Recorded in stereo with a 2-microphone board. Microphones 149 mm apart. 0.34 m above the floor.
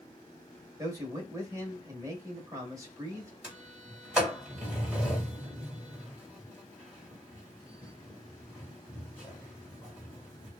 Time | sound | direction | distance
0.8 | a man speaking | 20° right (ahead or behind) | 1.3 m
3.4 | a sliding door | 5° right (ahead or behind) | 1.6 m